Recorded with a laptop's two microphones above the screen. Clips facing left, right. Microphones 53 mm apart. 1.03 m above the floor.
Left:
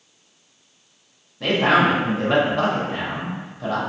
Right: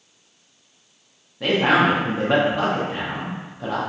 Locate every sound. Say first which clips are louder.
1.4 s a man speaking: even; 10° right (ahead or behind), 0.6 m